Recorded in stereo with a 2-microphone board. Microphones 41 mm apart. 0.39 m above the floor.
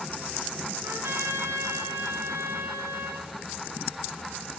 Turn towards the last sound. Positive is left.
turn(degrees=-80)